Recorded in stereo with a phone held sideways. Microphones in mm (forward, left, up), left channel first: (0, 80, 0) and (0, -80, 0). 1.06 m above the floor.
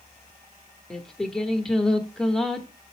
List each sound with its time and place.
0.9 s singing: 5° left (ahead or behind), 1.0 m